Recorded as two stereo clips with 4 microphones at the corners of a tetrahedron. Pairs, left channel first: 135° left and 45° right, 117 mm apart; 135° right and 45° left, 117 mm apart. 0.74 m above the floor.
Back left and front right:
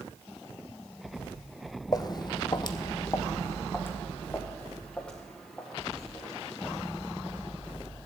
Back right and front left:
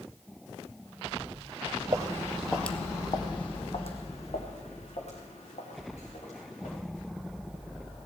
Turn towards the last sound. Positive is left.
turn(degrees=-140)